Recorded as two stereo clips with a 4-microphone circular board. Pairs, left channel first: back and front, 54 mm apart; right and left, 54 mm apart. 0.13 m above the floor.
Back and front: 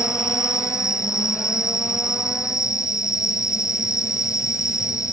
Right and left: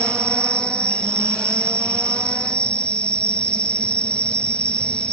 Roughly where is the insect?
Behind.